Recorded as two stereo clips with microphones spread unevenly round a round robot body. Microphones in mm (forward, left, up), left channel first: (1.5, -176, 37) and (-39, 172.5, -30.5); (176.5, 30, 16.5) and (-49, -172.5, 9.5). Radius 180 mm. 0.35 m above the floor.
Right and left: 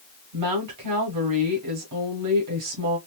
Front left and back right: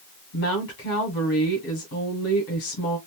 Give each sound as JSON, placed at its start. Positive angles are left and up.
{"t": 0.3, "sound": "a woman speaking", "azimuth_deg": 100, "distance_m": 1.8}